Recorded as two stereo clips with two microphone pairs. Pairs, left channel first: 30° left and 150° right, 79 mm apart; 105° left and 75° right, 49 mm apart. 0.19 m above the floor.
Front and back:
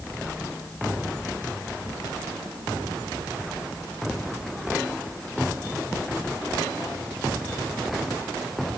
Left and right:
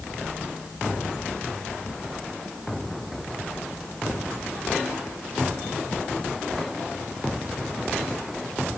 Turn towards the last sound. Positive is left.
No sound to turn to.